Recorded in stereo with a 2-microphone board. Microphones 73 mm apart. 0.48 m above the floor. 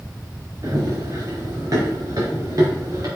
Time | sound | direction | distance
0.6 | running footsteps | 50° right (ahead or behind) | 3.5 m